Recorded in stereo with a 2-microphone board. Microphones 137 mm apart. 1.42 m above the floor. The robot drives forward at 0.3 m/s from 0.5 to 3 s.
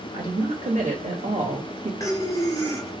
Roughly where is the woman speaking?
Right.